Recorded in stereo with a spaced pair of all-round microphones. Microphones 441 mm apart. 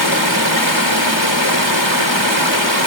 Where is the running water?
75° left (ahead or behind).